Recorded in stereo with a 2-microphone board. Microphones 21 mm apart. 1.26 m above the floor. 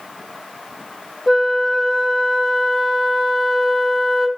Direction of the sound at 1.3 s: 15° left (ahead or behind).